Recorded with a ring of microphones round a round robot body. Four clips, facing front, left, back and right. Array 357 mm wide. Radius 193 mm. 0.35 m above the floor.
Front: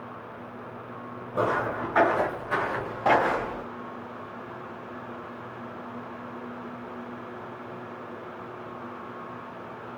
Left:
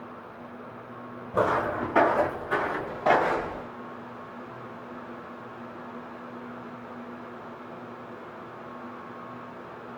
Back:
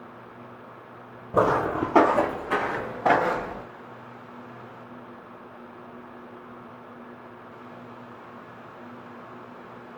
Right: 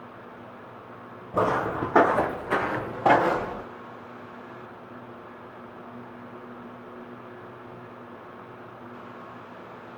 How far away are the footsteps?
About 1.6 m.